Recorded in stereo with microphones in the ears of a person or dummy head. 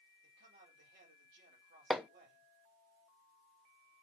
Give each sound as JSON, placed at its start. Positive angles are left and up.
{"t": 0.2, "sound": "a man speaking", "side_deg": -60, "distance_m": 3.5}
{"t": 1.9, "sound": "hammering", "side_deg": -5, "distance_m": 0.7}